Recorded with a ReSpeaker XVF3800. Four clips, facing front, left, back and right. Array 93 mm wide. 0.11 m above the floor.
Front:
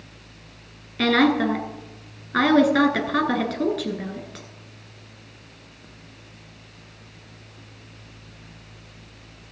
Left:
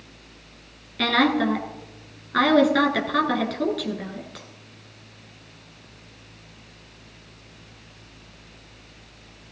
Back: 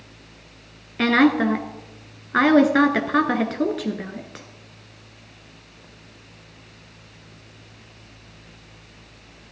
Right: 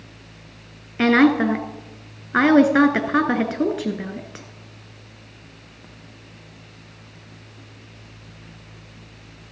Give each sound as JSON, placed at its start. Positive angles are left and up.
{"t": 1.0, "sound": "a woman speaking", "azimuth_deg": -125, "distance_m": 1.2}